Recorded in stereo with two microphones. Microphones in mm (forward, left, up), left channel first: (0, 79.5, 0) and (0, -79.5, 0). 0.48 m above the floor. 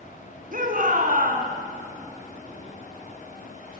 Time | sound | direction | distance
0.5 | a shout | 60° right (ahead or behind) | 4.5 m